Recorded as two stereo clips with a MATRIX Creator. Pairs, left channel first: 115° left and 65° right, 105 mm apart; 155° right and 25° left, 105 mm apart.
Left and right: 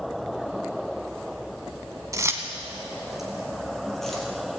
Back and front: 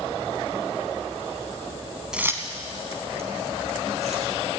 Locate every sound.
2.1 s keys jangling: 55° right, 0.9 m; by 4.3 s 25° left, 3.5 m